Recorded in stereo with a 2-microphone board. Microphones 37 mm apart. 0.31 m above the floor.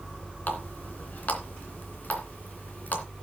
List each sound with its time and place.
0.5 s a running tap: 50° left (ahead or behind), 2.5 m